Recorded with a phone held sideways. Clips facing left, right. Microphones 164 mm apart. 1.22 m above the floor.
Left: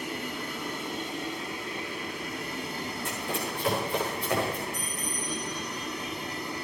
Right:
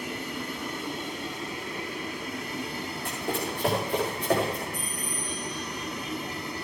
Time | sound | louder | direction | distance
3.0 | running footsteps | right 4 dB | 65° right (ahead or behind) | 4.5 m
4.7 | a bell | even | 55° right (ahead or behind) | 3 m